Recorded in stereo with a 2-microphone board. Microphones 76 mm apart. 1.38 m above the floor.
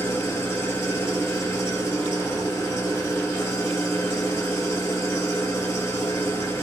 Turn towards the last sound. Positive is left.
turn(degrees=35)  # may be behind; listen again after turning